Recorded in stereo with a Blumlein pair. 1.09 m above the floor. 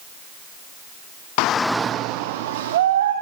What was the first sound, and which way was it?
A shout, 45° left.